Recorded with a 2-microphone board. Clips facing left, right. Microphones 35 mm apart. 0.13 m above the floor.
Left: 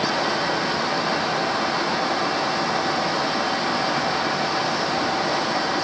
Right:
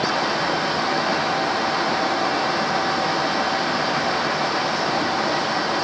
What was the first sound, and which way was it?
Only background noise.